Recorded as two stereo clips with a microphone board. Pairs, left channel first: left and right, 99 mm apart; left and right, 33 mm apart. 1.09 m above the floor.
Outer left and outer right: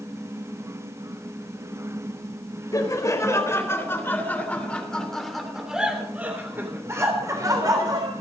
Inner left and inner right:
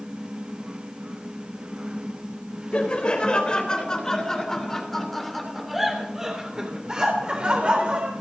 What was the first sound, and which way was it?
Laughter, 35° left (ahead or behind).